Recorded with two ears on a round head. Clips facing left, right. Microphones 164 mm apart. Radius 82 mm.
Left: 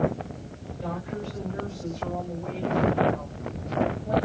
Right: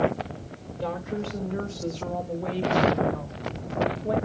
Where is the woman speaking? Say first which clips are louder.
Right 3 dB; 65° right (ahead or behind), 4.5 m; by 4.2 s 70° right (ahead or behind), 2.5 m.